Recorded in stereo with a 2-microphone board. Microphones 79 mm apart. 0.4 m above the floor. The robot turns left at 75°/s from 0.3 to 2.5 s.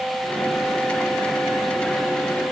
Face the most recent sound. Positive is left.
No sound to turn to.